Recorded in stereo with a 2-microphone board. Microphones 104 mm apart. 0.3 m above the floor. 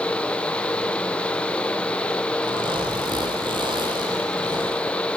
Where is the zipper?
50° right (ahead or behind), 4 m.